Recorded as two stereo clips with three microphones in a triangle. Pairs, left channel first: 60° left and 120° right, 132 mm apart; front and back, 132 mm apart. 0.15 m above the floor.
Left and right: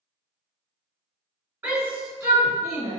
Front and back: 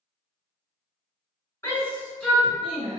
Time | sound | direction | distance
1.6 | a shout | 55° right | 2.0 m